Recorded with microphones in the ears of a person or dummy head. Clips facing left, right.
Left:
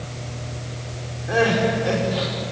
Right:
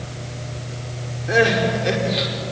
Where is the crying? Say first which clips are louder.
Right 1 dB; 30° right (ahead or behind), 4.5 m.